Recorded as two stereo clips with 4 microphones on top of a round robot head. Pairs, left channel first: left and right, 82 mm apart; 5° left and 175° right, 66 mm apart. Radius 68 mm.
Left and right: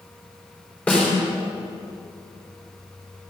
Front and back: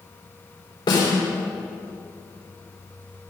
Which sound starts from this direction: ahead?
A snare drum, at 0.9 s.